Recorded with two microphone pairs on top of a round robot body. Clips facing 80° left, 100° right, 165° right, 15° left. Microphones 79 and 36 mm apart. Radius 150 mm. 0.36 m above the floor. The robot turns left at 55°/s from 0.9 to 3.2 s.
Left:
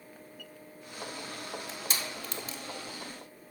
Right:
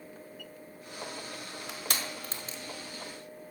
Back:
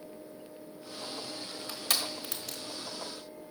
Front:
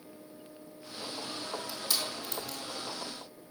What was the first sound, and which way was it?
Crushing, 115° right.